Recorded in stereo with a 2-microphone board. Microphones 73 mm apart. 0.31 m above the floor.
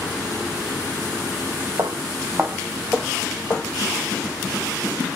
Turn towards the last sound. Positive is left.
turn(degrees=20)  # may be behind; listen again after turning